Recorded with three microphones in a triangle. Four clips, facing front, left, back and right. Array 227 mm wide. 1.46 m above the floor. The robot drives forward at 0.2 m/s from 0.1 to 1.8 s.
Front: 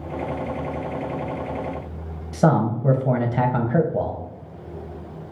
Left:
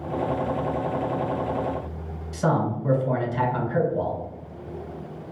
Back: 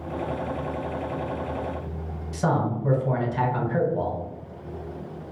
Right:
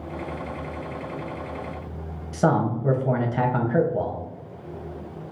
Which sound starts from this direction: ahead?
A man speaking, at 2.3 s.